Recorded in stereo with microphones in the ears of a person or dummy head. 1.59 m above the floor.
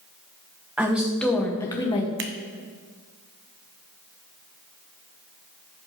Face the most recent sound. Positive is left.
turn(degrees=-55)  # may be behind; listen again after turning